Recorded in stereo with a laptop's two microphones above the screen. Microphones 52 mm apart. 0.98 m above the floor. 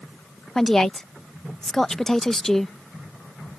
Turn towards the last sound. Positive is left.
turn(degrees=10)  # may be behind; listen again after turning